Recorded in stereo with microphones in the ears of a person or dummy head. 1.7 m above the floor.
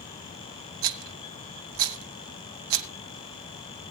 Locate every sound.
0.8 s a rattle: 65° right (ahead or behind), 1.0 m